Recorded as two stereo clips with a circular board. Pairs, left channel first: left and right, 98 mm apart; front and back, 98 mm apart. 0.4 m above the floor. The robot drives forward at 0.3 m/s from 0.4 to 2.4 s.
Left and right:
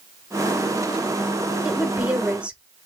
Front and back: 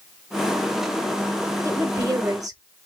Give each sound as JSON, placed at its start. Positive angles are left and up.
{"t": 1.6, "sound": "a woman speaking", "azimuth_deg": -155, "distance_m": 1.0}